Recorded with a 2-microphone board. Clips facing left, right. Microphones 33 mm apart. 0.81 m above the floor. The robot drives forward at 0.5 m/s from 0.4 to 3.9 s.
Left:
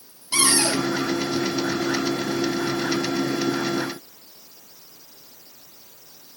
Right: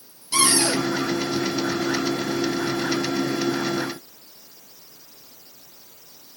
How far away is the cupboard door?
About 7 m.